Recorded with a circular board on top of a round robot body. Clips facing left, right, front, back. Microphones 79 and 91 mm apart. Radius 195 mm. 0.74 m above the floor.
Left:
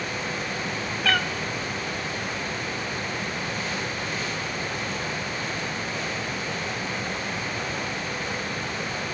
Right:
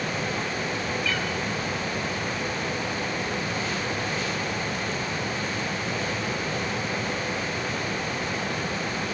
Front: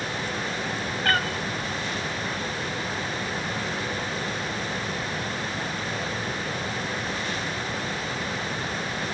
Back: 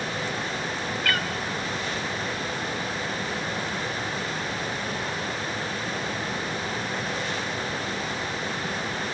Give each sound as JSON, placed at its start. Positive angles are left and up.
{"t": 1.0, "sound": "a cat meowing", "azimuth_deg": 55, "distance_m": 1.5}